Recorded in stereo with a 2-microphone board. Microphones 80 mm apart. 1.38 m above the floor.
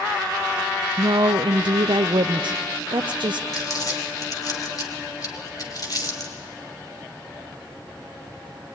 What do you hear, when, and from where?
1.0 s a woman speaking: 80° right, 0.5 m
3.5 s crumpling: 50° left (ahead or behind), 2.5 m